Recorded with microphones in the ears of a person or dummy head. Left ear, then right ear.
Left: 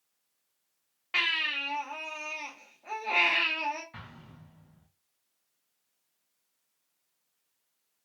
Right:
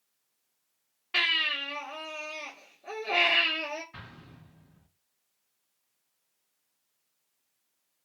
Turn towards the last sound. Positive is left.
turn(degrees=10)  # may be behind; listen again after turning